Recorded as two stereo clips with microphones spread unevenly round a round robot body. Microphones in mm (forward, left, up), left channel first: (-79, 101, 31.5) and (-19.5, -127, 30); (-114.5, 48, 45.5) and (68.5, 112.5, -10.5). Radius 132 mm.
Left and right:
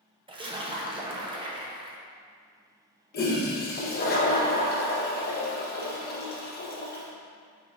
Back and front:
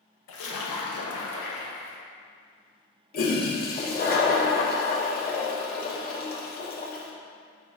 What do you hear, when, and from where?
0.3 s a splash: 145° right, 0.7 m
3.1 s a toilet flushing: 155° left, 0.9 m